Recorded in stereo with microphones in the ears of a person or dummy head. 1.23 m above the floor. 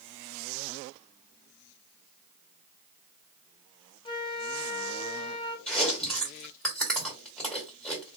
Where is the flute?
25° left (ahead or behind), 0.7 m.